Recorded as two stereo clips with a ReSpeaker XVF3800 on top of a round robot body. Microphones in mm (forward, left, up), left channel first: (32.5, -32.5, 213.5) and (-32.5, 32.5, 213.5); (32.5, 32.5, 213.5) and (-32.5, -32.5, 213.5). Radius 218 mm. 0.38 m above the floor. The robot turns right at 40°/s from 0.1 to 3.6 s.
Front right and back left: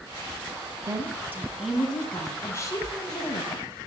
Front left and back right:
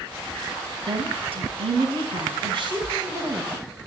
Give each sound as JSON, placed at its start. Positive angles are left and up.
{"t": 0.9, "sound": "a woman speaking", "azimuth_deg": -175, "distance_m": 4.5}